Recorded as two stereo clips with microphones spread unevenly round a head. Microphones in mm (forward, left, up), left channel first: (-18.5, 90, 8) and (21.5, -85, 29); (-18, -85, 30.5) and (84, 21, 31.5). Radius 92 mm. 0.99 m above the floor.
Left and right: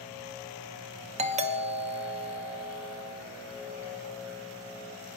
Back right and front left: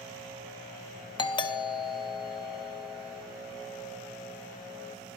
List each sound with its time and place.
1.2 s a doorbell: 110° right, 1.5 m